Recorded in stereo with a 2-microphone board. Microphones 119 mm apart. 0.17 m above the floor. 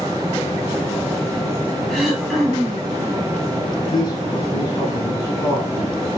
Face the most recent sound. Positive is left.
turn(degrees=35)  # may be behind; listen again after turning